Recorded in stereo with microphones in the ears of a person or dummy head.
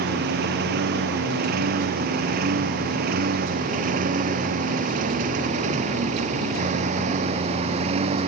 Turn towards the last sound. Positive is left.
turn(degrees=-30)  # may be behind; listen again after turning